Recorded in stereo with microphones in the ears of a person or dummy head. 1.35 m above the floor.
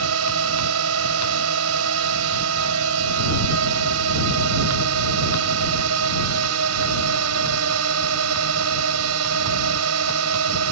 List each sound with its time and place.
0.0 s a drone: 85° right